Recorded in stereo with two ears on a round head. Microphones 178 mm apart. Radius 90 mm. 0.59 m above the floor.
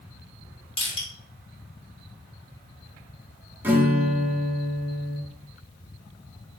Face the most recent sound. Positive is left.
turn(degrees=-10)  # may be behind; listen again after turning